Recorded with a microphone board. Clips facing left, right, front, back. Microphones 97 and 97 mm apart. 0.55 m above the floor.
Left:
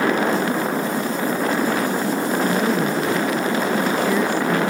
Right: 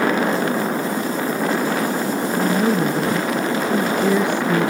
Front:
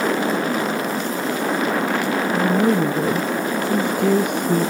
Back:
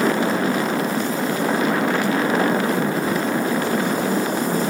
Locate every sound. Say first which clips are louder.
2.3 s a woman speaking: right 3 dB, front 2 dB; 15° right; by 4.7 s 20° right